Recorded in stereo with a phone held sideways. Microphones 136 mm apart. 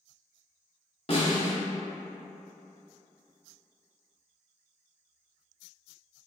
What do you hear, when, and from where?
1.1 s a snare drum: 50° left (ahead or behind), 1.7 m